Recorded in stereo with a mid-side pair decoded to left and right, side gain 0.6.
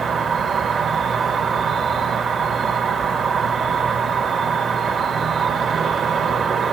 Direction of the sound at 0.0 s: 40° right.